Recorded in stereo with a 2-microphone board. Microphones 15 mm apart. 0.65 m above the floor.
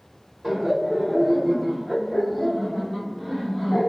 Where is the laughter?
10° right (ahead or behind), 1.2 m; by 3.9 s 25° left (ahead or behind), 1.7 m.